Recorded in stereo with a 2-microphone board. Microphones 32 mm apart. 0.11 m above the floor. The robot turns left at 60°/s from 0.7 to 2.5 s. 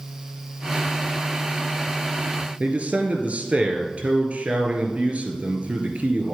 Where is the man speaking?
45° right (ahead or behind), 2 m.